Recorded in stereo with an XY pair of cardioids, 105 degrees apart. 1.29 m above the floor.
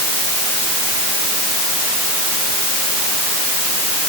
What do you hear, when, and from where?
Only background noise.